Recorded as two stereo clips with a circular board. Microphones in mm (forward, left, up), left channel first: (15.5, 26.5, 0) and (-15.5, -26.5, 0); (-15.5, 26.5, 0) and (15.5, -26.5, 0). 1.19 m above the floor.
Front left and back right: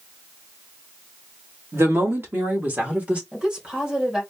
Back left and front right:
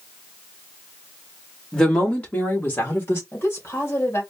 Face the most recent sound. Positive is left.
turn(degrees=165)